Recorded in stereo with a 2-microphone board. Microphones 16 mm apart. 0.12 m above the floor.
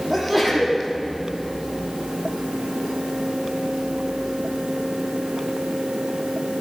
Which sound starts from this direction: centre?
A sneeze, at 0.1 s.